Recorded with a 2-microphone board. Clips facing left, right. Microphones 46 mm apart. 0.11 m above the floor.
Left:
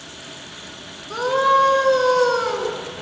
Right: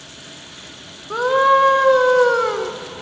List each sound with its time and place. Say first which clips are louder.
1.1 s a scream: right 3 dB; 20° right (ahead or behind), 1.8 m